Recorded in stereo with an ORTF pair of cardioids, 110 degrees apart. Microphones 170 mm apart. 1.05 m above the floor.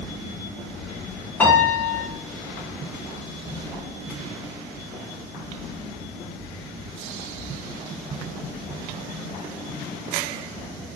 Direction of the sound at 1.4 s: 10° left.